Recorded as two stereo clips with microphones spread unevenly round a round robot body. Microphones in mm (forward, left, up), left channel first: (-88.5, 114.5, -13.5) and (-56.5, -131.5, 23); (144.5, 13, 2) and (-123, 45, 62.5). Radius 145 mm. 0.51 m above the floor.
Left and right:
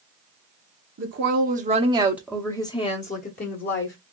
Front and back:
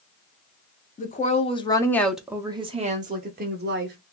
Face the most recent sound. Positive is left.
turn(degrees=120)